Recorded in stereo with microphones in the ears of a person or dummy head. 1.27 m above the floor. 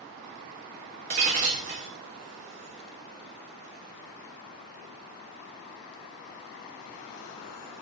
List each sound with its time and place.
1.1 s breaking glass: 40° right (ahead or behind), 0.8 m